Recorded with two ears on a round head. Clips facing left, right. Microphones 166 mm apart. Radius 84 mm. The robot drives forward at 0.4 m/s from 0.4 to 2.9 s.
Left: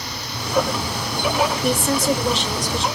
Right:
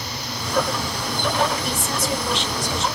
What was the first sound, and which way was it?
A woman speaking, 50° left (ahead or behind).